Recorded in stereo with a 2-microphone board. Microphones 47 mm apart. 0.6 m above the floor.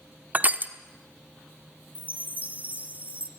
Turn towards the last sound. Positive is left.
turn(degrees=-30)  # may be behind; listen again after turning